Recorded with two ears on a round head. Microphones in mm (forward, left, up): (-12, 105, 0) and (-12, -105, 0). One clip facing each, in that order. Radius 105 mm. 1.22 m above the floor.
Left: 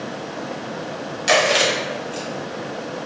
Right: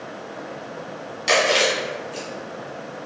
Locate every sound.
1.3 s chewing: 15° left (ahead or behind), 1.3 m